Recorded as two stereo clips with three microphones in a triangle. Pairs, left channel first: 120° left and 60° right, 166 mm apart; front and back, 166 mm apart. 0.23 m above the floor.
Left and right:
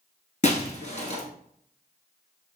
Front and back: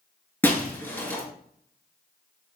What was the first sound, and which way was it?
Breaking glass, 80° left.